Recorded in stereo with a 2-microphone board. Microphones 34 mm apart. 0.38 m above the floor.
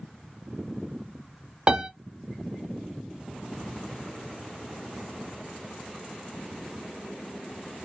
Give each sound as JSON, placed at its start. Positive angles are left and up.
{"t": 1.7, "sound": "a piano", "side_deg": -30, "distance_m": 0.5}